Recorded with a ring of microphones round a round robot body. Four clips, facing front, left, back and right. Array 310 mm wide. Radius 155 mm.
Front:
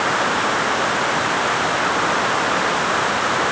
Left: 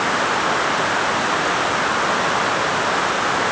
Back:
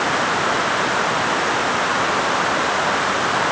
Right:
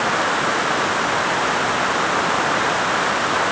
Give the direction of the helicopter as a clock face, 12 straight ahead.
I don't hear a helicopter.